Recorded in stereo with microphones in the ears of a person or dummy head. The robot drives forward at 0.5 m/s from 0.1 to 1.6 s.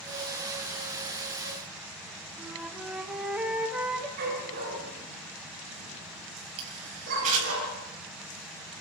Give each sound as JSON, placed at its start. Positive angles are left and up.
{"t": 2.4, "sound": "a flute", "side_deg": -5, "distance_m": 2.5}
{"t": 4.2, "sound": "a dog barking", "side_deg": -50, "distance_m": 8.0}
{"t": 6.6, "sound": "a camera shutter", "side_deg": -45, "distance_m": 9.0}